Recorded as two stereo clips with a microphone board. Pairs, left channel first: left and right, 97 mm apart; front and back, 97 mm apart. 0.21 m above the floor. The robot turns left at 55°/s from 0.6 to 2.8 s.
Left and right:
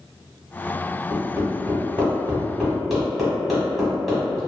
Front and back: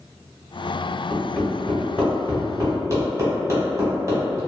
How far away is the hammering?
About 1.2 m.